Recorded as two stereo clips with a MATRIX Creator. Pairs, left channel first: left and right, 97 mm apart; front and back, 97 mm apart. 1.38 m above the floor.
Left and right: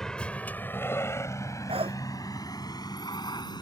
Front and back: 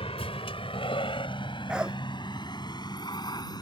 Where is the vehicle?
5° left; by 3.6 s 45° left.